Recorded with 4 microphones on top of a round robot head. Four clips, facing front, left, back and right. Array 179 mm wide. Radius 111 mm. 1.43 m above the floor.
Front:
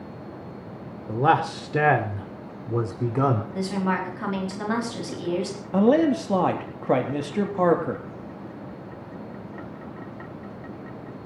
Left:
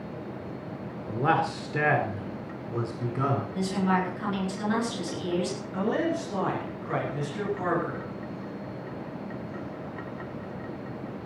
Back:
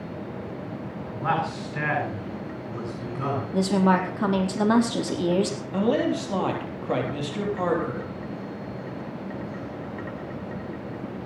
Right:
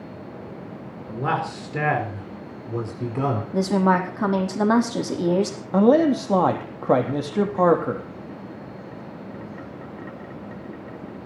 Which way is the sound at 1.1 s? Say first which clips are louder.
Even, front 6 dB; straight ahead.